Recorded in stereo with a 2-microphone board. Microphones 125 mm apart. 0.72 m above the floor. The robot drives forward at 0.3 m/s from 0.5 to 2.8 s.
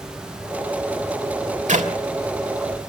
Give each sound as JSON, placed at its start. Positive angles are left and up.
{"t": 1.7, "sound": "a clap", "side_deg": -80, "distance_m": 3.0}